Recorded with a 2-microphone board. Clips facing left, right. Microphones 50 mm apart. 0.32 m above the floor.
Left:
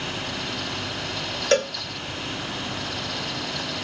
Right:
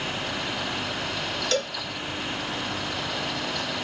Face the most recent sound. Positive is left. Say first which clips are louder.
# left 8 dB
turn(degrees=40)  # may be behind; listen again after turning